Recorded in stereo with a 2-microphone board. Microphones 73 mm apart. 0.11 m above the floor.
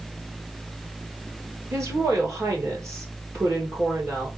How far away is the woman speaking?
About 2.5 m.